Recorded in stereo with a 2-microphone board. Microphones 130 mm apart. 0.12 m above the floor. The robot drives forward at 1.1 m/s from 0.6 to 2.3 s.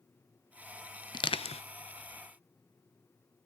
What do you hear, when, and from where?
1.1 s crushing: 35° left (ahead or behind), 0.7 m; by 1.6 s 50° left (ahead or behind), 0.5 m